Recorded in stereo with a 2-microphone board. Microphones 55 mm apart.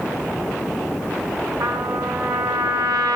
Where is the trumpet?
75° right (ahead or behind), 3.5 m.